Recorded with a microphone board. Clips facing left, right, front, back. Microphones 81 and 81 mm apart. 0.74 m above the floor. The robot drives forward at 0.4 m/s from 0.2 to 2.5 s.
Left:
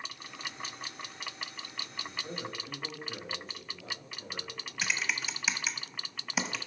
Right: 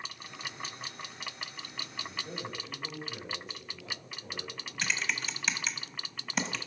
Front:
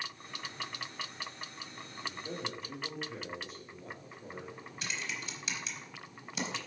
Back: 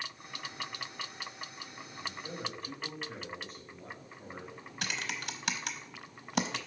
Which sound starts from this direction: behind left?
A man speaking, at 2.0 s.